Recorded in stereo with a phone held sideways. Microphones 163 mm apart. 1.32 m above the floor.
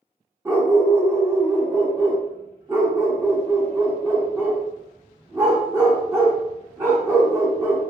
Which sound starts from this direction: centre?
A dog barking, at 0.5 s.